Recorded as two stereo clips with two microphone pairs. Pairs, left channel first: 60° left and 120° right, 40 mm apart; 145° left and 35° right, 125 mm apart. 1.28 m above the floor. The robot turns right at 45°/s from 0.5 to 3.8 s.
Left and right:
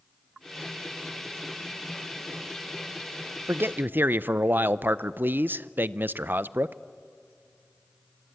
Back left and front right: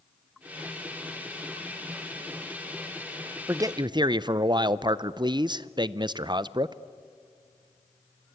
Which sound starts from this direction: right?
A man speaking, at 3.5 s.